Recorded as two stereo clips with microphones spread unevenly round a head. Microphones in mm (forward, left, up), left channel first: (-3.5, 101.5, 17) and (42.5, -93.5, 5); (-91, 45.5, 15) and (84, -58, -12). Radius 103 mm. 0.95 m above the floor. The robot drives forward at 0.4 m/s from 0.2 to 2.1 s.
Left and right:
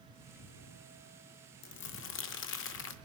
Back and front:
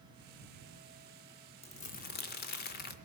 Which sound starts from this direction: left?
Crumpling, at 1.6 s.